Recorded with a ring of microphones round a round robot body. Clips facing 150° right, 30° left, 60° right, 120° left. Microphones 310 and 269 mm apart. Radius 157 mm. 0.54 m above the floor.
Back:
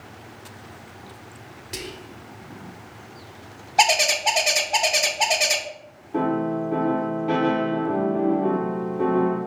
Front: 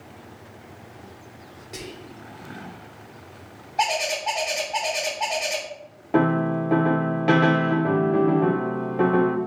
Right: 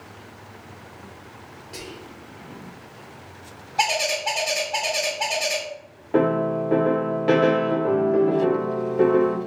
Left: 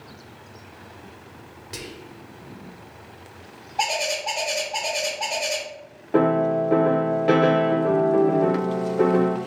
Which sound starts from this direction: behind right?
A bird, at 3.8 s.